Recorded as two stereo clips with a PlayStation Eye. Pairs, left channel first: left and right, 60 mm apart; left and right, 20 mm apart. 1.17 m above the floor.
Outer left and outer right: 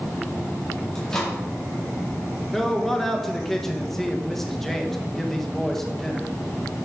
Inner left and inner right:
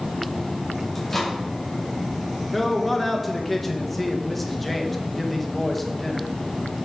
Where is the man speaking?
5° left (ahead or behind), 1.0 m.